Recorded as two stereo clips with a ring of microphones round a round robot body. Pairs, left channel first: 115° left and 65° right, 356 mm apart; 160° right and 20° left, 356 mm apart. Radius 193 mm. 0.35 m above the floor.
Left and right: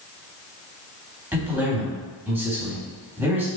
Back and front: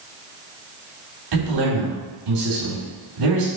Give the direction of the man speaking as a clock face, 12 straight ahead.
11 o'clock.